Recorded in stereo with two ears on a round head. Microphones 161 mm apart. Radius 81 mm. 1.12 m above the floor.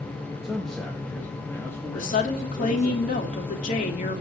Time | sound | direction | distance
0.4 | a man speaking | 5° right (ahead or behind) | 1.5 m
1.9 | a woman speaking | 50° left (ahead or behind) | 2.5 m